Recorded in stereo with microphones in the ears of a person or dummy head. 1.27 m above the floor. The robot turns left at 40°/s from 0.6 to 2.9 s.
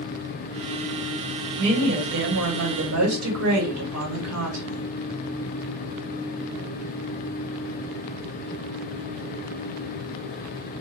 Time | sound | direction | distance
1.6 | a woman speaking | 30° right | 1.6 m